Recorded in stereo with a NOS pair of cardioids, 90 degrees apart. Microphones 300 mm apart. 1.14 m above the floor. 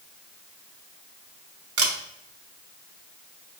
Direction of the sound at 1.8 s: 50° right.